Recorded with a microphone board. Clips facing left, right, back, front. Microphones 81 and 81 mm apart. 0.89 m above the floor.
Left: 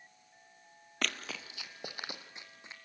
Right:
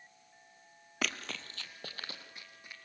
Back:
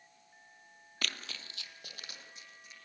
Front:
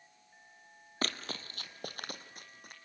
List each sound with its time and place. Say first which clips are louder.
1.0 s running footsteps: even, front 4 dB; 10° right, 1.0 m; by 2.8 s 25° left, 2 m